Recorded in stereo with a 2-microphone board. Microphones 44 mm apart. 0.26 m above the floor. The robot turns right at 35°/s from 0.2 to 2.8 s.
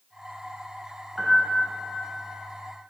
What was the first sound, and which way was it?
A piano, centre (ahead or behind).